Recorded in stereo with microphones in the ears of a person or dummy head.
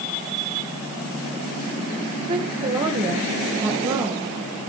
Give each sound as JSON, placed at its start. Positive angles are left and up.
{"t": 2.3, "sound": "a woman speaking", "side_deg": -30, "distance_m": 1.0}